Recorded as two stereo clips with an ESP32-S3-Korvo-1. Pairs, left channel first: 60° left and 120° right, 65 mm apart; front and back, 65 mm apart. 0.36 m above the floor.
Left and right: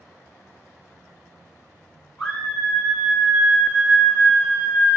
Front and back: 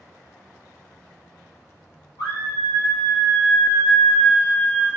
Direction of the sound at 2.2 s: 10° right.